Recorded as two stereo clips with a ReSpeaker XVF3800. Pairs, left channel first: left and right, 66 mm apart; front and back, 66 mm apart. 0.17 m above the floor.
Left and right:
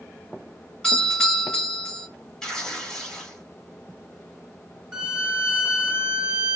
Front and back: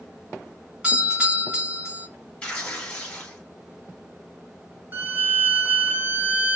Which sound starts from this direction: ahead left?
Tearing paper, at 2.4 s.